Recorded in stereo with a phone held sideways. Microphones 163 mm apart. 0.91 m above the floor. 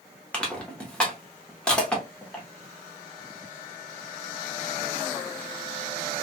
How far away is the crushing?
About 1.0 m.